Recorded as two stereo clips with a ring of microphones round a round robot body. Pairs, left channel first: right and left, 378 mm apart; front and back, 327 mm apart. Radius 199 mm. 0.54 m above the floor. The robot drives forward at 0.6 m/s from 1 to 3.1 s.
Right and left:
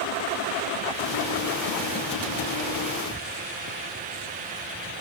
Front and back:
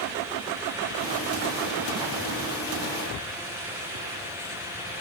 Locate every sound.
Only background noise.